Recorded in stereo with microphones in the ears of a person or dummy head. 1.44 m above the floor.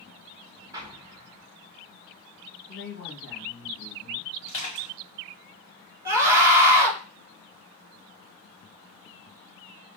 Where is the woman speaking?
65° left (ahead or behind), 1.8 m.